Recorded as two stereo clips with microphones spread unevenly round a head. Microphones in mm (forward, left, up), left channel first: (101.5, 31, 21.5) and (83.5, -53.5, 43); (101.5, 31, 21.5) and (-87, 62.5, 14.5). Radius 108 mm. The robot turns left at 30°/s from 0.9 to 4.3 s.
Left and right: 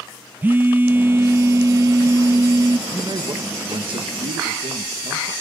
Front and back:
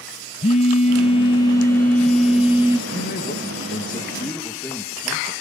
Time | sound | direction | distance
0.4 | a phone buzzing | 60° right | 0.6 m
2.9 | a man speaking | 50° right | 1.9 m